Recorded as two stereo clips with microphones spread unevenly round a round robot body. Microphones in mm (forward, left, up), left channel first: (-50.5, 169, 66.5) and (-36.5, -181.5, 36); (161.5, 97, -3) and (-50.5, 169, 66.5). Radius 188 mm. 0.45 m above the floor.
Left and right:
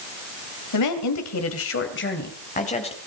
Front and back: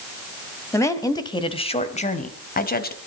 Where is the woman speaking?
55° left, 2.5 m; by 3.0 s 15° left, 3 m.